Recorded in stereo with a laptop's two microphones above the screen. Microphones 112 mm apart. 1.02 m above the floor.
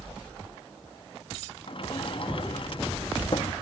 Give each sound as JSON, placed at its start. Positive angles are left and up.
{"t": 1.7, "sound": "a sliding door", "side_deg": 50, "distance_m": 0.5}